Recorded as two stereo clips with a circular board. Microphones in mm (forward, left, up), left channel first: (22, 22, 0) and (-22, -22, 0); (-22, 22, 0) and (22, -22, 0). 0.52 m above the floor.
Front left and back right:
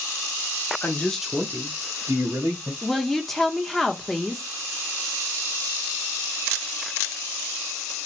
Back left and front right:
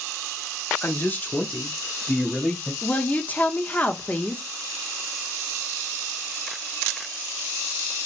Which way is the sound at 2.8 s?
130° left.